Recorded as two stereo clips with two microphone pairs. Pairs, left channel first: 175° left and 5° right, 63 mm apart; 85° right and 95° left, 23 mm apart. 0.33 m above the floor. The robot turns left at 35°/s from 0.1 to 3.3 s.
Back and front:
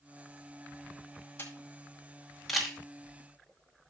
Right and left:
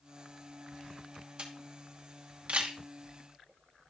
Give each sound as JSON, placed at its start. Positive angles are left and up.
{"t": 1.4, "sound": "a camera shutter", "azimuth_deg": 125, "distance_m": 2.5}